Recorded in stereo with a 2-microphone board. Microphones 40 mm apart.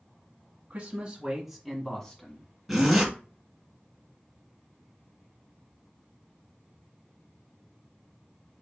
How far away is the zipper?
About 1.8 m.